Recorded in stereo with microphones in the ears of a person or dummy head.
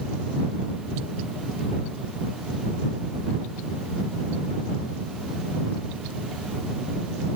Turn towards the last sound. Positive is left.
No sound to turn to.